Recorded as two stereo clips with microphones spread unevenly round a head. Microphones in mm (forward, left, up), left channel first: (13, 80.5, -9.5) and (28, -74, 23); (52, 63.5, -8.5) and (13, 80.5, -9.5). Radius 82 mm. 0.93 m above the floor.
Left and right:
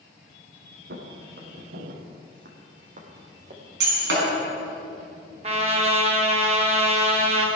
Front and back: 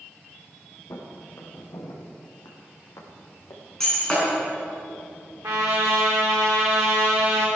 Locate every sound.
0.9 s footsteps: 75° right, 3 m; by 3.6 s 45° right, 2.5 m
3.8 s breaking glass: 110° right, 5 m
5.4 s a trumpet: 145° right, 1.9 m